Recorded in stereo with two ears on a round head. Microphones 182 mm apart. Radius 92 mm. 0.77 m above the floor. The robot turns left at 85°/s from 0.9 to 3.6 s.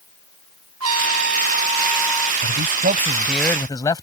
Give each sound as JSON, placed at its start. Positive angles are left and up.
{"t": 0.8, "sound": "a trumpet", "azimuth_deg": -85}
{"t": 2.4, "sound": "a man speaking", "azimuth_deg": -100}